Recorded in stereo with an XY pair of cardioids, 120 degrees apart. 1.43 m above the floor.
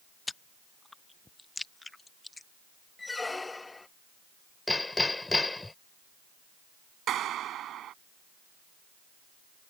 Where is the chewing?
15° left.